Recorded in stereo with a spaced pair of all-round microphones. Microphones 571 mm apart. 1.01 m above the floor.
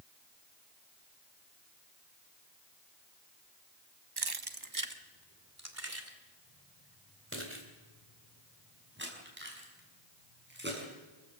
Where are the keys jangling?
45° right (ahead or behind), 0.9 m; by 10.9 s 20° right (ahead or behind), 7 m.